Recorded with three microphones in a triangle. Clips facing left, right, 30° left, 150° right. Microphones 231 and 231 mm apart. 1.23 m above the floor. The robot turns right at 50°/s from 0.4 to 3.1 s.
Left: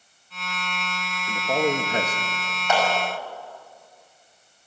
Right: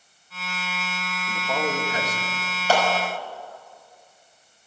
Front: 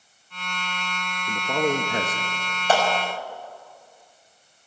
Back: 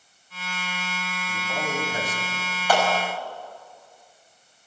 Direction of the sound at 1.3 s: 15° left.